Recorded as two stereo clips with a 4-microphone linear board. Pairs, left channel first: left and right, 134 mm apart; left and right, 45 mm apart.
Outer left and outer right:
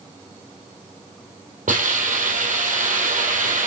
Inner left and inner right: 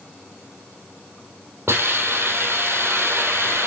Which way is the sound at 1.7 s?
70° right (ahead or behind).